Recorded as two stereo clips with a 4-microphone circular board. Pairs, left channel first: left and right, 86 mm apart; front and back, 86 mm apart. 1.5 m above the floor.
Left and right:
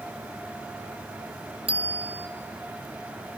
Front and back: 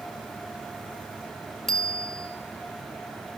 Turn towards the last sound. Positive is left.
turn(degrees=-85)